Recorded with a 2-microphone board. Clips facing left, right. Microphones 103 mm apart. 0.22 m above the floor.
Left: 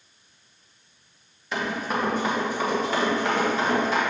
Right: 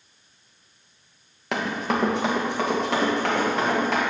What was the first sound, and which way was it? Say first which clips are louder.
Running footsteps: right 2 dB; 70° right (ahead or behind).